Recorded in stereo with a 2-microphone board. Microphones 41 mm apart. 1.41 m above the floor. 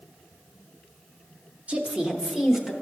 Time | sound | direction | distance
1.7 | a woman speaking | 30° right (ahead or behind) | 0.8 m